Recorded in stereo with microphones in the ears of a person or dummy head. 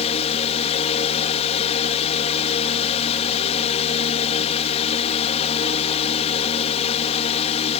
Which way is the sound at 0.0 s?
40° left (ahead or behind).